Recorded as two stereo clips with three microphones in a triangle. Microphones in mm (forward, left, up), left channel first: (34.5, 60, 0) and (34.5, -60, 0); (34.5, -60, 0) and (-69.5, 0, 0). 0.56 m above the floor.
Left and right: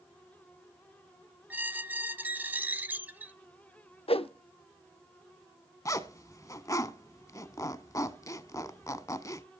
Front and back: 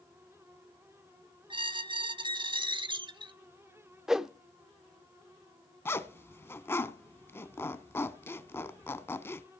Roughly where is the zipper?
Ahead left.